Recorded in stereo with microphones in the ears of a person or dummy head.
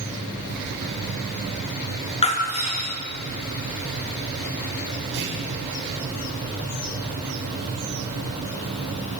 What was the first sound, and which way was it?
Breaking glass, 30° left (ahead or behind).